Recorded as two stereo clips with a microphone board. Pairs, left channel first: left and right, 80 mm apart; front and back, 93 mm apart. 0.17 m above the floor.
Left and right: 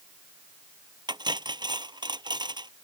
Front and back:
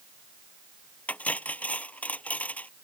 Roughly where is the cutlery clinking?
Right.